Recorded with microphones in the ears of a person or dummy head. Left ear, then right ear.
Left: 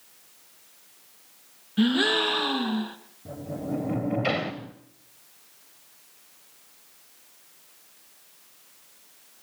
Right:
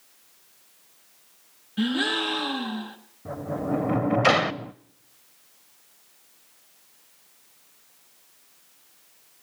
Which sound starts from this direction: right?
A sliding door, at 3.2 s.